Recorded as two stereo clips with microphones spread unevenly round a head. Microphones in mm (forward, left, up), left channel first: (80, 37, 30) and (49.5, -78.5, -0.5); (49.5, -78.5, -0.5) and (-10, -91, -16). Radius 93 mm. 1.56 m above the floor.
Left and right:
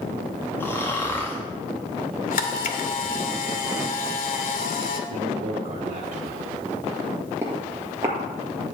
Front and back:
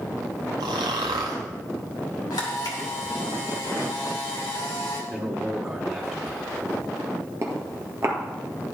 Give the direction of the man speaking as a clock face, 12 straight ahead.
3 o'clock.